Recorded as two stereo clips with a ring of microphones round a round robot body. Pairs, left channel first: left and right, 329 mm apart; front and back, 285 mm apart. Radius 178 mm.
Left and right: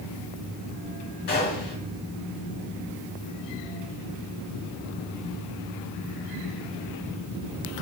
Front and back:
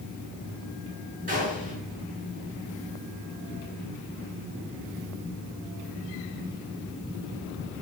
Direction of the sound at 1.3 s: 120° left.